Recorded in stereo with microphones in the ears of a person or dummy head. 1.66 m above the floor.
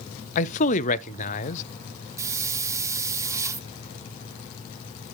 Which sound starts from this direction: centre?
A hiss, at 2.2 s.